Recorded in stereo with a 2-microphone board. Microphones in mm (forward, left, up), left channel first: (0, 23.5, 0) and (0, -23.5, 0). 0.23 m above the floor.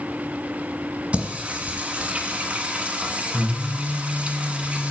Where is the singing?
30° right (ahead or behind), 1.4 m.